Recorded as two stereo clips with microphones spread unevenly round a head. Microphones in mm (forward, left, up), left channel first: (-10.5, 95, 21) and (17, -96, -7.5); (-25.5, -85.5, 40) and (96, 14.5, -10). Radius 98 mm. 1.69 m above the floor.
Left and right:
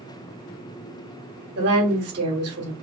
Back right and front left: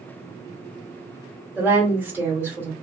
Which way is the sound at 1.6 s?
45° right.